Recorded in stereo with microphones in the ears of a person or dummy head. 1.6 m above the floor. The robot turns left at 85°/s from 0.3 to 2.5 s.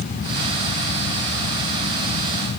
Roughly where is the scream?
I don't hear a scream.